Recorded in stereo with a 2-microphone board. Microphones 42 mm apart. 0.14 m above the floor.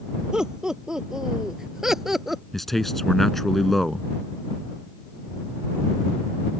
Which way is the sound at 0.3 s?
20° right (ahead or behind).